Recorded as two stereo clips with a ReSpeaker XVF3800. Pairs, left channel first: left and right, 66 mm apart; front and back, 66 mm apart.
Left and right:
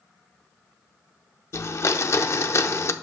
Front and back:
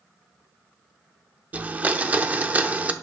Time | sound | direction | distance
1.5 | a blender | 120° left | 0.6 m